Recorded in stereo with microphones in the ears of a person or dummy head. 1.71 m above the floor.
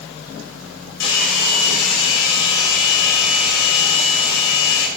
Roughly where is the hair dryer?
Left.